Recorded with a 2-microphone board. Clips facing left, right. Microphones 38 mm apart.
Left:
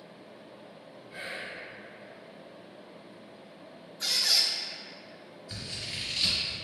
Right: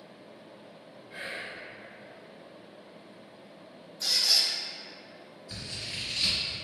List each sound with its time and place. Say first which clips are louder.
1.1 s whispering: even; 10° right (ahead or behind), 1.1 m
4.0 s a squeak: even; 50° left (ahead or behind), 0.5 m
5.5 s scissors: even; 15° left (ahead or behind), 1.9 m